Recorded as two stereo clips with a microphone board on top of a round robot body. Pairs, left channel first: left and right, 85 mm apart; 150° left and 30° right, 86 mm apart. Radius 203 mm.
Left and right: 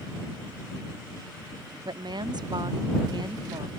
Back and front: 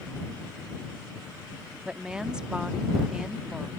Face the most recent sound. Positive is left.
turn(degrees=-110)